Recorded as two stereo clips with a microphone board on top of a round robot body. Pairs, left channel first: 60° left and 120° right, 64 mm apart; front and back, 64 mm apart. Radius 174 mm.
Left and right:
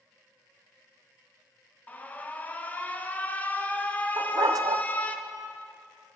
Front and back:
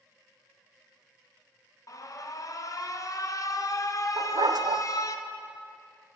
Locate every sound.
1.9 s an alarm: 5° right, 1.0 m
4.2 s a dog barking: 160° right, 0.6 m